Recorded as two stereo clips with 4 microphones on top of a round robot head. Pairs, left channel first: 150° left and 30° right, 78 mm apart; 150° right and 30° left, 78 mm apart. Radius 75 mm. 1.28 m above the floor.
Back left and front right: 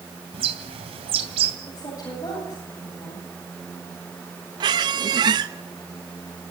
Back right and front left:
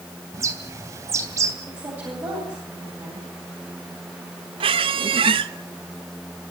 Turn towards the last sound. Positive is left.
turn(degrees=10)